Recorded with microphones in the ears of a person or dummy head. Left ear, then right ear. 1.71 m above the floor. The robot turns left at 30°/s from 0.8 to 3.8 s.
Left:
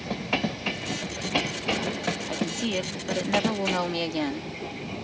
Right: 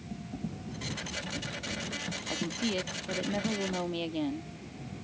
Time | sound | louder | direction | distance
2.3 | a woman speaking | left 4 dB | 165° left | ?